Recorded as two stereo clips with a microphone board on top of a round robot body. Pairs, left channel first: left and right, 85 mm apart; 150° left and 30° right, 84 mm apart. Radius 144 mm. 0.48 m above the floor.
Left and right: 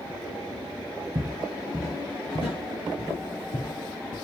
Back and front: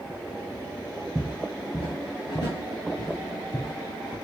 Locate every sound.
1.1 s footsteps: 120° right, 0.6 m; by 4.2 s 100° left, 2 m